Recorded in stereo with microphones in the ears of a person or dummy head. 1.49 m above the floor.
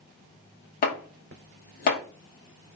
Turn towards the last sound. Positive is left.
turn(degrees=50)  # may be behind; listen again after turning